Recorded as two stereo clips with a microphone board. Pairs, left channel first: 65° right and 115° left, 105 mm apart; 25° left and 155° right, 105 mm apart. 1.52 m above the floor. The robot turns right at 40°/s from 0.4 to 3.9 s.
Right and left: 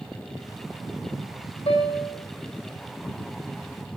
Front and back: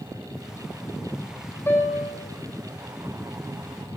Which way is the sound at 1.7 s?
45° right.